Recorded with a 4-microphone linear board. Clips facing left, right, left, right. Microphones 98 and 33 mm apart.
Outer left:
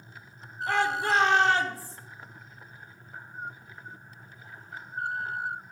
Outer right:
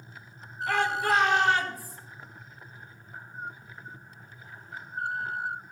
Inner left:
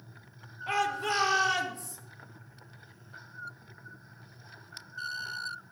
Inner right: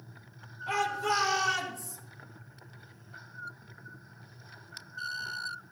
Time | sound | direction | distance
0.7 | a shout | 30° left (ahead or behind) | 3.5 m